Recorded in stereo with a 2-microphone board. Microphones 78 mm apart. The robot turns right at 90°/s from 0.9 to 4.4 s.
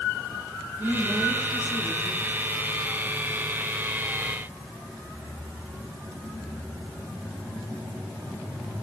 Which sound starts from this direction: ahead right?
A woman speaking, at 0.8 s.